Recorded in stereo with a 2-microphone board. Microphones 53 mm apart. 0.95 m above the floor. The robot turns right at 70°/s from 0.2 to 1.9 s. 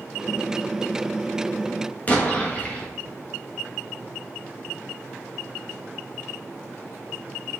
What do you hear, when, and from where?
2.1 s an explosion: 30° left (ahead or behind), 1.5 m